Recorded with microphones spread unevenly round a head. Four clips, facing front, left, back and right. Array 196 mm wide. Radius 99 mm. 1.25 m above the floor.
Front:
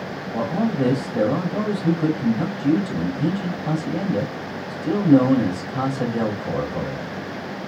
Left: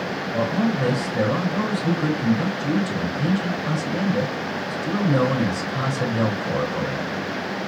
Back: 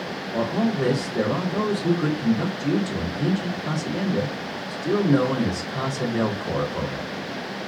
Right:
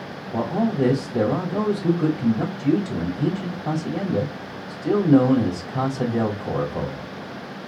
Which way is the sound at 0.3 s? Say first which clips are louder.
Right 1 dB, front 1 dB; 75° right.